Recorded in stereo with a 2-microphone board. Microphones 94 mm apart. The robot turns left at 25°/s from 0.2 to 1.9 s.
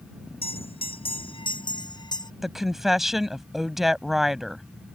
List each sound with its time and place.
0.4 s a bell: 85° left; by 2.3 s 50° left
2.4 s a woman speaking: 5° right (ahead or behind)